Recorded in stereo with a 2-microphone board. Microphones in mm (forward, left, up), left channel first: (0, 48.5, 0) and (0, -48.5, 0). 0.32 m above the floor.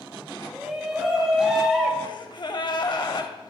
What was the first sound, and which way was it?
A shout, 5° right (ahead or behind).